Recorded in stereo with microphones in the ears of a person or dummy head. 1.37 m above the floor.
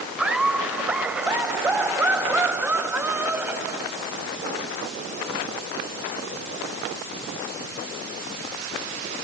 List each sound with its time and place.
0.2 s laughter: 5° right (ahead or behind); by 4.2 s 10° right (ahead or behind)